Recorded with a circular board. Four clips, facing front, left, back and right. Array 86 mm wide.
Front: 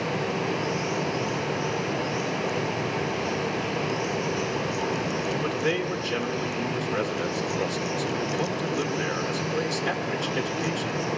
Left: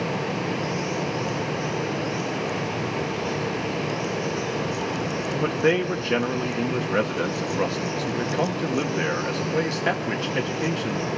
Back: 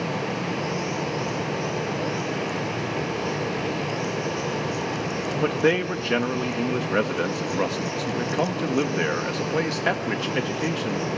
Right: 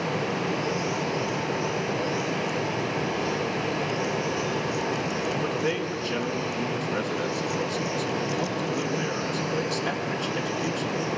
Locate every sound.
5.4 s a man speaking: 150° left, 1.5 m